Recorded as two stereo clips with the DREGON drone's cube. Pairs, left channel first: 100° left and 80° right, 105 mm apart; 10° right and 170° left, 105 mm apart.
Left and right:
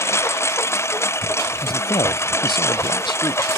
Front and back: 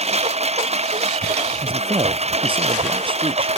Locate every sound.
0.0 s a lawn mower: 165° left
1.6 s a man speaking: 140° left